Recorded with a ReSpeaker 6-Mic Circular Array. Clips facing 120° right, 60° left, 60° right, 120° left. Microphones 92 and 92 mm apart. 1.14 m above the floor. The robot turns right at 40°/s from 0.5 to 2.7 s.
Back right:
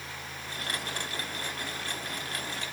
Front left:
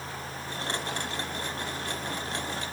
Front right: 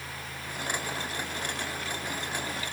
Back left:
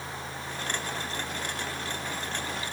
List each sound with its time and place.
Only background noise.